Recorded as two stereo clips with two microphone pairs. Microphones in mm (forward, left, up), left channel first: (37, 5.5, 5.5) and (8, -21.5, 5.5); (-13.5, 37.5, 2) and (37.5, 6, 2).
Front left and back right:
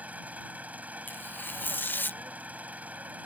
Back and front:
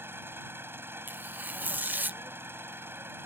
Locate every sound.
0.0 s an engine running: 85° right
1.1 s tearing paper: 25° left